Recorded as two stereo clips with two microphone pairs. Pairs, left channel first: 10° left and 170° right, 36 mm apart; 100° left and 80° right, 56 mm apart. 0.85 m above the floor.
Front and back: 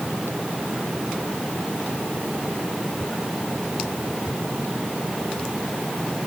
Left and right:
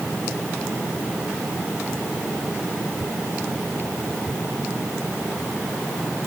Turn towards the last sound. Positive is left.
No sound to turn to.